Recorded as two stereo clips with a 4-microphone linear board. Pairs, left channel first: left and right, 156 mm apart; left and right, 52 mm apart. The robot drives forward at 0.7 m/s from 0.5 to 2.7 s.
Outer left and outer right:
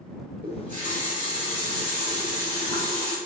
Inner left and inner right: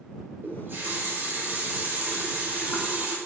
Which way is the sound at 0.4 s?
55° right (ahead or behind).